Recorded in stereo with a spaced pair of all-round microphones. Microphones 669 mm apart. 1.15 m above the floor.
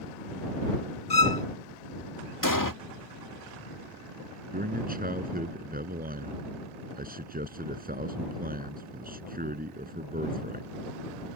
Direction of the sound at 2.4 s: 30° left (ahead or behind).